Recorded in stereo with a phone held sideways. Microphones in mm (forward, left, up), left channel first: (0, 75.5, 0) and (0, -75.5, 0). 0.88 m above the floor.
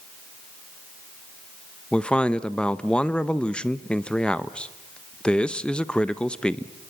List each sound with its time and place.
1.9 s a man speaking: 5° left (ahead or behind), 0.8 m